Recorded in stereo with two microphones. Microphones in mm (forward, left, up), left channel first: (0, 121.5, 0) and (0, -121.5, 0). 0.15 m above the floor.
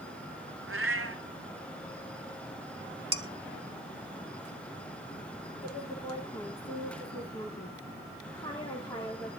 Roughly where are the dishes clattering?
Right.